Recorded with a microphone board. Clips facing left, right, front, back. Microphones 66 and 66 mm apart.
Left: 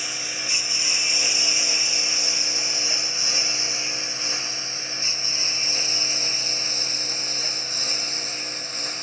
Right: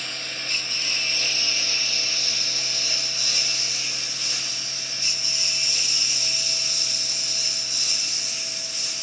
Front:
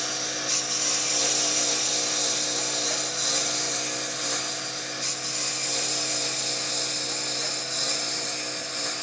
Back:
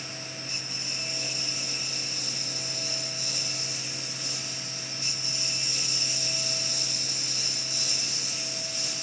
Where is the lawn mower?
10° left; by 9.0 s 35° left.